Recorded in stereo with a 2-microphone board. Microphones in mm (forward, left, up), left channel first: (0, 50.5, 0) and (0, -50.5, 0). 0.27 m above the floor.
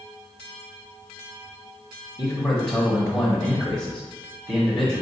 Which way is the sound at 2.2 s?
5° right (ahead or behind).